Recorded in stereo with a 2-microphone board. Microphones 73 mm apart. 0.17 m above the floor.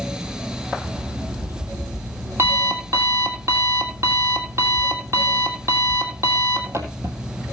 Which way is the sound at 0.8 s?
40° right (ahead or behind).